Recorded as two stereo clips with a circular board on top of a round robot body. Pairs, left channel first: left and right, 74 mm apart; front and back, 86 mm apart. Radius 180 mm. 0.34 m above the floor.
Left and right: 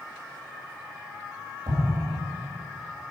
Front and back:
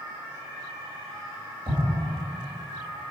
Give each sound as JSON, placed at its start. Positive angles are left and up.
{"t": 1.7, "sound": "an explosion", "azimuth_deg": -120, "distance_m": 2.5}